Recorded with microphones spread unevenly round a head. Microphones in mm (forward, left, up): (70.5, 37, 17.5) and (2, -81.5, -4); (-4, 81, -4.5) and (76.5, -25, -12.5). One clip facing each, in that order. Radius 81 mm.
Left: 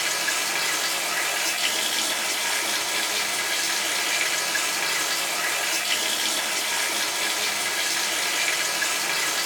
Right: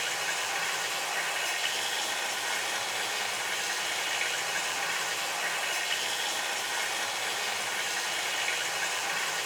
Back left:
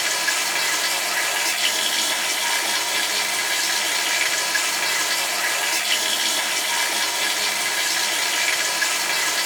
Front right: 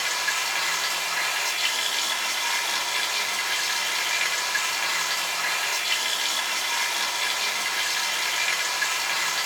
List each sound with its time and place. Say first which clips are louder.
0.0 s running water: left 4 dB, back left 3 dB; 90° left, 3 m